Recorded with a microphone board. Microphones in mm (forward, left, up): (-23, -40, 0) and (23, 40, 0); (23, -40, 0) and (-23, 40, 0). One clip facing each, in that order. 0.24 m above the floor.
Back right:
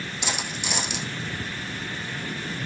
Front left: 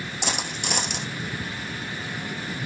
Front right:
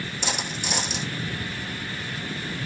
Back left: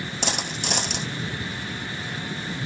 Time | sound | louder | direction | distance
0.2 | a dropped coin | front left 2 dB, back left 2 dB | 95° left | 0.8 m